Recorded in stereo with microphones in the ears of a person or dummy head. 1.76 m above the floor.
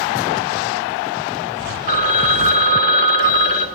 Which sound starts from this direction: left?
A phone ringing, at 1.9 s.